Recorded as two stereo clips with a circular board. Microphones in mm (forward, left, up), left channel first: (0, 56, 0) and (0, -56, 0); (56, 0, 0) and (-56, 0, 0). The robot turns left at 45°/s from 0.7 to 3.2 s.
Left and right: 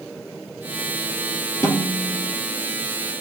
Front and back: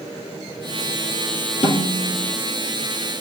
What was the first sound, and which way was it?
A snare drum, 30° left.